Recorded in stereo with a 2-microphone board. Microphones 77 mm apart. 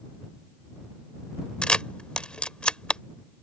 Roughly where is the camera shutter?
Centre.